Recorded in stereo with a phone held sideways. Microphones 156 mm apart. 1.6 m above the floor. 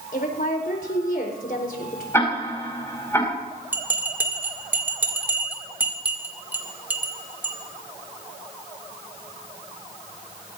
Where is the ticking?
15° left (ahead or behind), 5 m.